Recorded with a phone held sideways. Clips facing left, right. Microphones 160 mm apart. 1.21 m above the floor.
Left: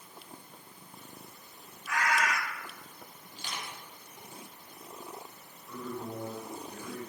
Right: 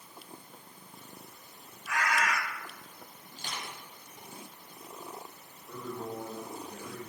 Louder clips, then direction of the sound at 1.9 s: Left 1 dB; 65° right (ahead or behind).